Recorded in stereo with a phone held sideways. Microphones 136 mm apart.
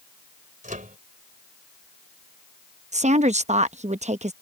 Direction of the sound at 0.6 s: 70° right (ahead or behind).